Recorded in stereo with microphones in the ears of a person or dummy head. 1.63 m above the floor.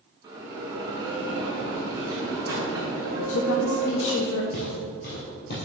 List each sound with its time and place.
0.2 s a bell: 20° right (ahead or behind), 2 m
3.2 s a woman speaking: 75° left (ahead or behind), 1.1 m
4.5 s footsteps: 50° left (ahead or behind), 2.5 m; by 5.7 s 60° left (ahead or behind), 3 m